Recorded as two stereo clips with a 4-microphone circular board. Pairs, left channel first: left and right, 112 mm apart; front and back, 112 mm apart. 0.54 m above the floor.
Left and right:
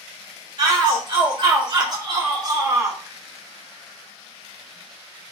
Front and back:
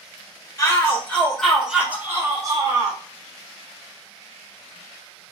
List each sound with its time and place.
0.6 s a shout: 60° right, 1.2 m; by 3.0 s 145° right, 1.3 m